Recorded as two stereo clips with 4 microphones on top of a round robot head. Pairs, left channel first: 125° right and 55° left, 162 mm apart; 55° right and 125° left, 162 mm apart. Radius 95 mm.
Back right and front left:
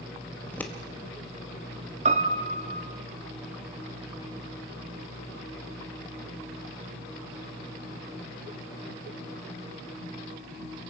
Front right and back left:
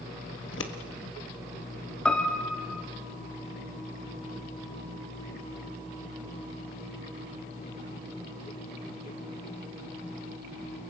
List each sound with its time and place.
0.4 s scissors: 45° right, 1.4 m
2.0 s a piano: 30° left, 1.1 m